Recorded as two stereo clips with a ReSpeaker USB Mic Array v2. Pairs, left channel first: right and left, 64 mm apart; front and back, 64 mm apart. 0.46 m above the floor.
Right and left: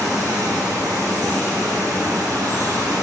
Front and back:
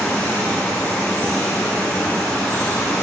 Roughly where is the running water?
Left.